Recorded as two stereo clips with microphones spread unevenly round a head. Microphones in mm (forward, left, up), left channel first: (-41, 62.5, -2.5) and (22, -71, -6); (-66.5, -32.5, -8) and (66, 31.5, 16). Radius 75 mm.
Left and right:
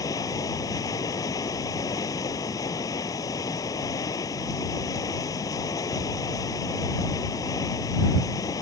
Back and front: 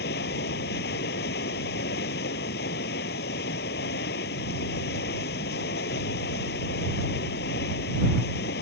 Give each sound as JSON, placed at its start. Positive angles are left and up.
{"t": 0.0, "sound": "running water", "azimuth_deg": -175}